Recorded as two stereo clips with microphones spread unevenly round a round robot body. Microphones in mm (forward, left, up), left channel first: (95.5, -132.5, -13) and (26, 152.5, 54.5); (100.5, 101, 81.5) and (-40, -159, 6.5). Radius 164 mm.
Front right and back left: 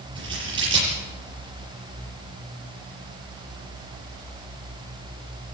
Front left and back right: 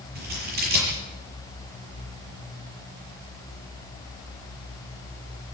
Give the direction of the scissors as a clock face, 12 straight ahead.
6 o'clock.